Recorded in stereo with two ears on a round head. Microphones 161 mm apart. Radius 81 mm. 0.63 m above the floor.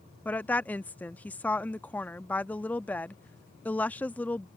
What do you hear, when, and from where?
0.2 s a woman speaking: 10° left (ahead or behind)